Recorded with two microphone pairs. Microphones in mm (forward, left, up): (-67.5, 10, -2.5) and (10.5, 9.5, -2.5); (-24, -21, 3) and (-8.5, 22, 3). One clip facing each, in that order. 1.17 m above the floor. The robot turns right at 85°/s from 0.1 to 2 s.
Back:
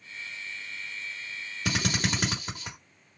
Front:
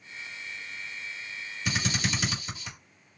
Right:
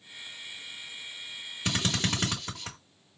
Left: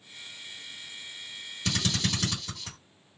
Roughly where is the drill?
Behind.